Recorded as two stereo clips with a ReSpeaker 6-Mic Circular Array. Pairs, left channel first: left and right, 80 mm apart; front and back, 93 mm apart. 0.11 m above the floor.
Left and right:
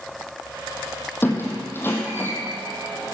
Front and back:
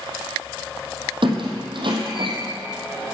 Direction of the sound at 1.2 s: 155° left.